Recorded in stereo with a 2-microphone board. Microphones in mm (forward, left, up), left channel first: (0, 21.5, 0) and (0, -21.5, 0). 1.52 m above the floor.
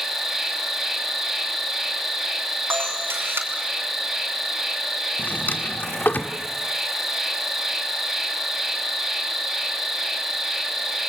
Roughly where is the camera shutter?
Right.